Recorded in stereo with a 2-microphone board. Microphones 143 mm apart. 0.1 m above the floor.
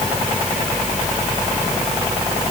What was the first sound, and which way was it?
Only background noise.